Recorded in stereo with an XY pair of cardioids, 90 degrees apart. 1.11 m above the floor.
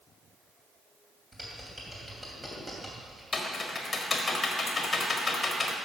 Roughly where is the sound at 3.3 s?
Ahead left.